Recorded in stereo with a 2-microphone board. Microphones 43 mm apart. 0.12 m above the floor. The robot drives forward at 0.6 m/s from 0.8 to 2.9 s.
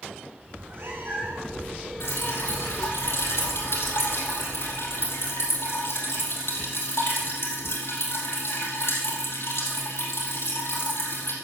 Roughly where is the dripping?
Left.